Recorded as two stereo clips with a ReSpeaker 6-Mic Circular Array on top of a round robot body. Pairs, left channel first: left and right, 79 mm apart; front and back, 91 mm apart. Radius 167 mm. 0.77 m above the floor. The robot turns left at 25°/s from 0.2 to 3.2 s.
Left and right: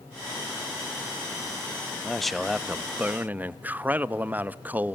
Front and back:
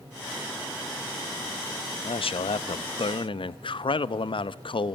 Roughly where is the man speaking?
Ahead.